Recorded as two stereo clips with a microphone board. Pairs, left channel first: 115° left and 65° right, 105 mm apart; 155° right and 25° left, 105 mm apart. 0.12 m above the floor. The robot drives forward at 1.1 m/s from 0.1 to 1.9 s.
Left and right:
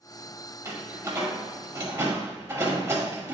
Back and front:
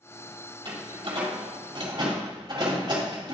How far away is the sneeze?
No sneeze in this recording.